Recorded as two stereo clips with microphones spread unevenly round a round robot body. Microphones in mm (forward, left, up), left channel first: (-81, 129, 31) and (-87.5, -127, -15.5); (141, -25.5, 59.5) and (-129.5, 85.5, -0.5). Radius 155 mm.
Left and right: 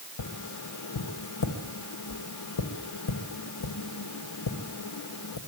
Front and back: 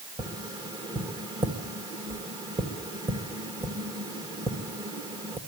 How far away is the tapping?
About 1.6 m.